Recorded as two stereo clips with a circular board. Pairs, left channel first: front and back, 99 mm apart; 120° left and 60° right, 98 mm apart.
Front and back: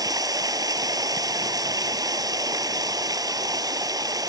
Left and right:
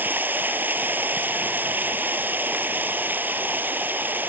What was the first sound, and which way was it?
Running water, 130° right.